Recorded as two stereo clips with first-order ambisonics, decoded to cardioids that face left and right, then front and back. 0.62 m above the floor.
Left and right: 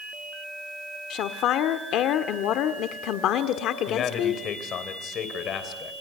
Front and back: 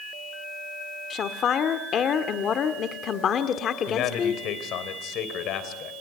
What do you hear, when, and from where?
1.1 s a woman speaking: 55° left, 1.3 m
3.9 s a man speaking: 40° left, 3 m